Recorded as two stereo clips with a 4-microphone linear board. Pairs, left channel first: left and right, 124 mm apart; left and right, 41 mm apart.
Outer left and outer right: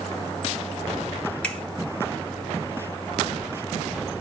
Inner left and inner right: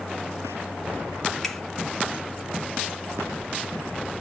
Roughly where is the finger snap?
Centre.